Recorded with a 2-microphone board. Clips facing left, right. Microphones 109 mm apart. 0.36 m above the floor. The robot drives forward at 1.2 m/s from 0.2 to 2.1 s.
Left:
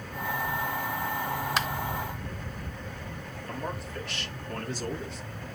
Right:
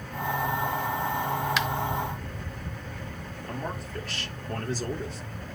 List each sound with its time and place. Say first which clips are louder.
1.6 s a finger snap: right 1 dB; 40° left (ahead or behind), 0.8 m
3.5 s a man speaking: right 1 dB; 45° right (ahead or behind), 6.5 m